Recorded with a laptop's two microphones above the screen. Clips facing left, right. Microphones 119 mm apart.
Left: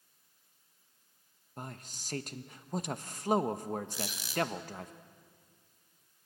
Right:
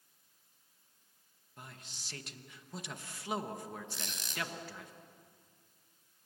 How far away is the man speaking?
About 1.0 m.